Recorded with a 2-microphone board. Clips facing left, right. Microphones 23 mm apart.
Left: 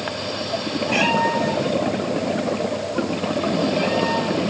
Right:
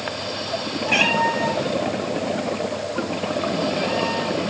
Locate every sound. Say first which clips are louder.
0.9 s a cat meowing: right 1 dB; 25° right (ahead or behind), 4.5 m; by 4.4 s 20° left (ahead or behind), 7.5 m